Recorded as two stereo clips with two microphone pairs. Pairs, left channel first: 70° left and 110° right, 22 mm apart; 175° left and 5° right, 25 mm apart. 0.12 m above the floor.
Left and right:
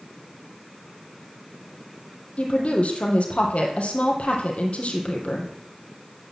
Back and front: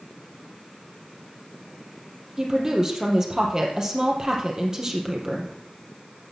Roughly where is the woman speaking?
Ahead left.